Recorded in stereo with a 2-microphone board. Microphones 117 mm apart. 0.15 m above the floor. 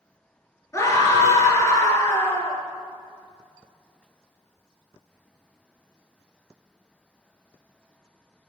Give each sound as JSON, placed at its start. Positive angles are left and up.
{"t": 0.7, "sound": "a scream", "side_deg": 25, "distance_m": 2.0}